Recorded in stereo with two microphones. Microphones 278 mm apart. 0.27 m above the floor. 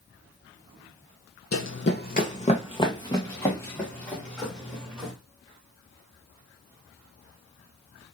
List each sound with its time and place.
1.5 s running footsteps: 55° left (ahead or behind), 0.7 m; by 5.1 s centre (ahead or behind), 2.5 m